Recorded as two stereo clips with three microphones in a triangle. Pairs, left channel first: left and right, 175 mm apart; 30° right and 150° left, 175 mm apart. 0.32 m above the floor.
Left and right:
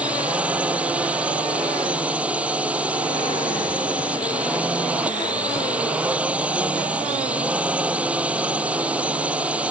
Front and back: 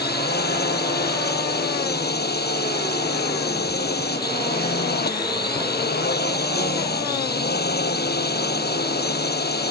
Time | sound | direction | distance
0.0 | a drone | 10° right | ?